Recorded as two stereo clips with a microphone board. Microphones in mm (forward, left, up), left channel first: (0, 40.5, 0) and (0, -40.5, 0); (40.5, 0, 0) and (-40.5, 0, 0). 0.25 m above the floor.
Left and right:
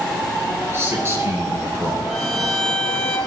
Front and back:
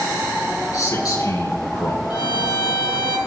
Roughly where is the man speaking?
Ahead right.